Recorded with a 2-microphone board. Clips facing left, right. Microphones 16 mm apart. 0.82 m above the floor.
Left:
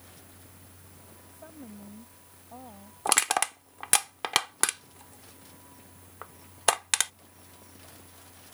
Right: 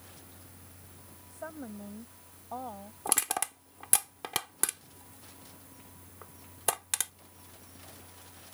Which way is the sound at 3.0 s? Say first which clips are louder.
Left 7 dB; 30° left (ahead or behind).